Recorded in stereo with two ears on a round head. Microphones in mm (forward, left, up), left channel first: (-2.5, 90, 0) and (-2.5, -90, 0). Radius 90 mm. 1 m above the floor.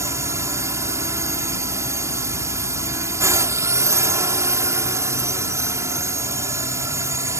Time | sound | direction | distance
0.0 | a drone | 15° right (ahead or behind) | ?